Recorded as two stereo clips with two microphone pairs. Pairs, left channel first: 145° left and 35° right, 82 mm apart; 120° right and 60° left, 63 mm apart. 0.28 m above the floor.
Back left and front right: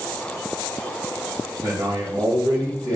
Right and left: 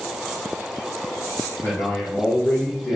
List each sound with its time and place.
1.6 s a man speaking: 70° right, 1.1 m